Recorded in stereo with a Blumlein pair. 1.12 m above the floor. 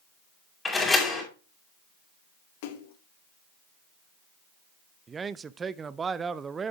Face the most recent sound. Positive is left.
turn(degrees=-20)